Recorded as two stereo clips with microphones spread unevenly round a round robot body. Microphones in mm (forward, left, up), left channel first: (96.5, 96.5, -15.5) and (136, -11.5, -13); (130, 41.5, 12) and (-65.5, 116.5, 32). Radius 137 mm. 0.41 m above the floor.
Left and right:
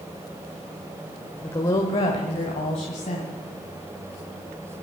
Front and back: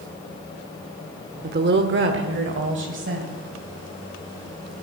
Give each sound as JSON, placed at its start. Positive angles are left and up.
{"t": 1.4, "sound": "a woman speaking", "azimuth_deg": 170, "distance_m": 0.9}